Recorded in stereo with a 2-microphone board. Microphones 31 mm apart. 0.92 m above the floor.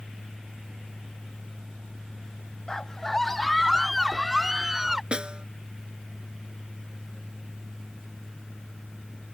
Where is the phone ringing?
I don't hear a phone ringing.